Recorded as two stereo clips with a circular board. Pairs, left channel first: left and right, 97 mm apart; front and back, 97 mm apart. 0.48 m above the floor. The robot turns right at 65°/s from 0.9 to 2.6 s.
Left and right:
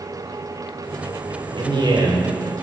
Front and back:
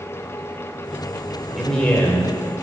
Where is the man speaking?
95° right, 2 m; by 2.4 s 45° right, 2 m.